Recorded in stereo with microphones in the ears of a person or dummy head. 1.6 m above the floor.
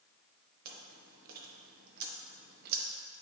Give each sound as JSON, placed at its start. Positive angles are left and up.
{"t": 0.7, "sound": "chewing", "side_deg": -50, "distance_m": 0.8}